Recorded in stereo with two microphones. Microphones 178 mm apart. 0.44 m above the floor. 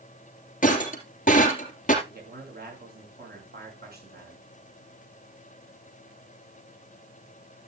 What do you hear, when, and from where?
0.6 s breaking glass: 45° left (ahead or behind), 2.5 m
2.0 s a man speaking: 65° right (ahead or behind), 6 m